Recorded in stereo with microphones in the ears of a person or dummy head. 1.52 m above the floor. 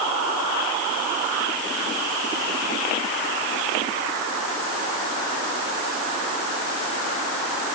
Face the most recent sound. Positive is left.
No sound to turn to.